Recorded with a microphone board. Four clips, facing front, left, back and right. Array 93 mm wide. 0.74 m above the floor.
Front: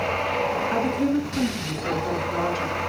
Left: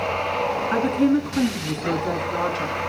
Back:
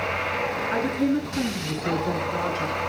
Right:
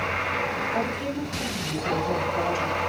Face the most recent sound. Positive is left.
turn(degrees=85)